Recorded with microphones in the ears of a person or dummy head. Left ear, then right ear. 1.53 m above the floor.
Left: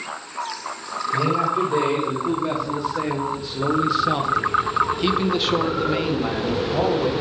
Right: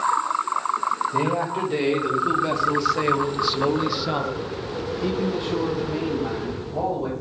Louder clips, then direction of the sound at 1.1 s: Left 3 dB; 75° right (ahead or behind).